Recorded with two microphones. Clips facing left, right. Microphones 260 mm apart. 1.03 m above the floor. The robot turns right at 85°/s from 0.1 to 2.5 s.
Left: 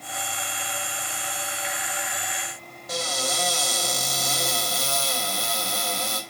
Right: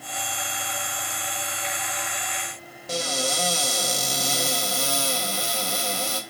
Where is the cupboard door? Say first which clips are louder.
Right 2 dB; 30° right (ahead or behind), 0.7 m.